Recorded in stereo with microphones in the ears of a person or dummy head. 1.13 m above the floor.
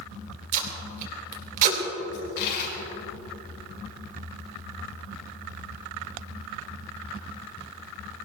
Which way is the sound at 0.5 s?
45° right (ahead or behind).